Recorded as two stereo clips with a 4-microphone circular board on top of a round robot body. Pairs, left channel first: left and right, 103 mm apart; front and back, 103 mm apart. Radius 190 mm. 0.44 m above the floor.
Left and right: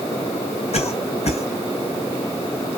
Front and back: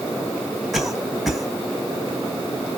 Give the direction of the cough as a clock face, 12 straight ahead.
9 o'clock.